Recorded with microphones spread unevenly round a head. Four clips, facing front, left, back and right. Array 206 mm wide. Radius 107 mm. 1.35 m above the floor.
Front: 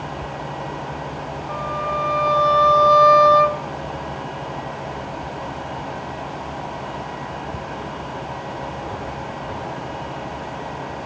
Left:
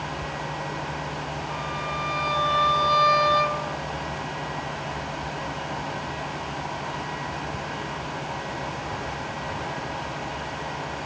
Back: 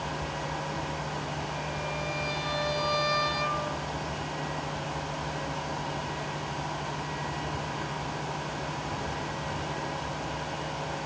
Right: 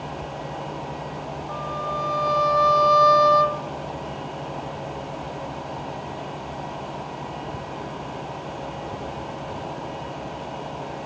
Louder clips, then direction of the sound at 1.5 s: Right 5 dB, front 10 dB; 10° right.